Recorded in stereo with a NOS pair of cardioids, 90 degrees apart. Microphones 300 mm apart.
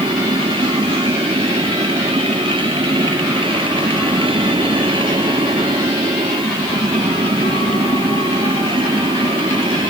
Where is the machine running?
15° right.